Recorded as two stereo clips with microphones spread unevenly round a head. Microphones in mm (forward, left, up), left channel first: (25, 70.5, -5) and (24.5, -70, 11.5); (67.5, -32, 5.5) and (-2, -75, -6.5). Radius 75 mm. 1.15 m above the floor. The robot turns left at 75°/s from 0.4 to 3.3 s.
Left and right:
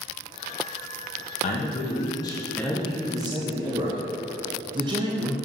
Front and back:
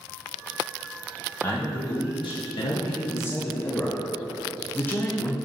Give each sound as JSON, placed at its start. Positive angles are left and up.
{"t": 1.4, "sound": "a man speaking", "azimuth_deg": 105, "distance_m": 0.8}